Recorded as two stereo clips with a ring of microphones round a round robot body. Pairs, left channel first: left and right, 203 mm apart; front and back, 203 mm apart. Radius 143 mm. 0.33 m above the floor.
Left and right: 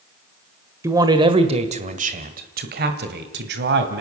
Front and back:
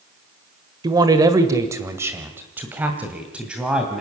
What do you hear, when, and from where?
0.8 s a man speaking: 145° right, 1.2 m; by 4.0 s 95° right, 2 m